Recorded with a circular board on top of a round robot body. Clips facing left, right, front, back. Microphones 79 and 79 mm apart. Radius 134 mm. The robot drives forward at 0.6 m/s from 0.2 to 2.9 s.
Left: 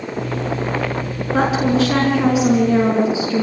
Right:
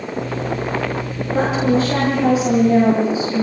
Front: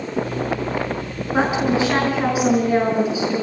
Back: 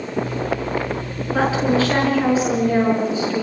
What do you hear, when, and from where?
1.3 s a woman speaking: 70° left, 6 m; by 3.4 s 80° left, 5.5 m